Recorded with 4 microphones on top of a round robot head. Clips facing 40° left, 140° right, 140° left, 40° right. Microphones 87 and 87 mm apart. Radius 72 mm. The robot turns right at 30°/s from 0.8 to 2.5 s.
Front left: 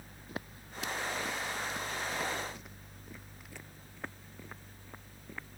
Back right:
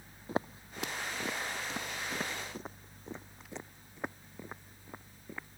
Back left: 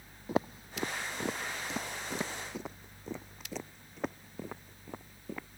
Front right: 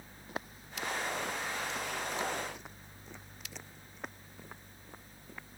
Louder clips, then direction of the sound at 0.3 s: Back right 8 dB, back left 10 dB; 155° left.